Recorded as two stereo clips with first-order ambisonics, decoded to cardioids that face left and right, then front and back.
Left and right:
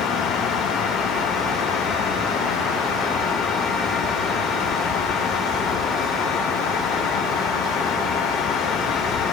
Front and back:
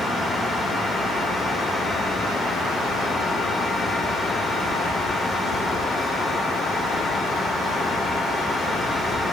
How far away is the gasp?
I don't hear a gasp.